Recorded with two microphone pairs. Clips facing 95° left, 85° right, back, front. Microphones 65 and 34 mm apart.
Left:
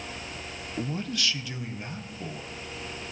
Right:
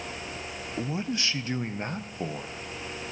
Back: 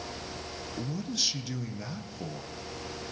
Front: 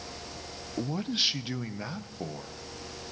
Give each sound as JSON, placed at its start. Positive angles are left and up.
{"t": 0.8, "sound": "a man speaking", "azimuth_deg": -5, "distance_m": 0.6}